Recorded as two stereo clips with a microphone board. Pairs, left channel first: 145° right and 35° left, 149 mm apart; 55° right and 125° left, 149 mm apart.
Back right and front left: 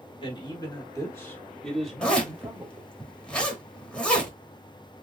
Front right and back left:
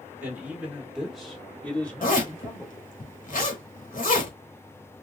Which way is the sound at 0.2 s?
170° right.